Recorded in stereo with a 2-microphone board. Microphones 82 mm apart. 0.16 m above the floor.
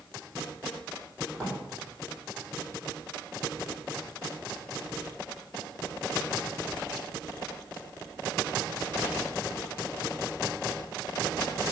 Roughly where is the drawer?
Centre.